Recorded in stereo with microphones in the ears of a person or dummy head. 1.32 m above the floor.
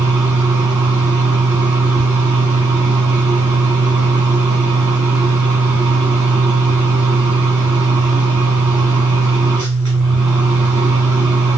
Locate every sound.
0.0 s a fan: 15° right (ahead or behind), 1.2 m